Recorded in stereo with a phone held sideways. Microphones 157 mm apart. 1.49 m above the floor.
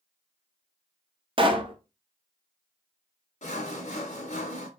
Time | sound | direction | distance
1.4 | a pop | 35° right (ahead or behind) | 0.5 m
3.4 | sawing | 50° left (ahead or behind) | 0.8 m